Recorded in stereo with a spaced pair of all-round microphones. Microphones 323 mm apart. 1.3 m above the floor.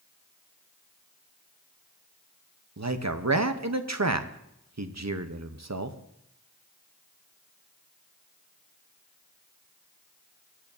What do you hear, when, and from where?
2.8 s a man speaking: 55° right (ahead or behind), 0.8 m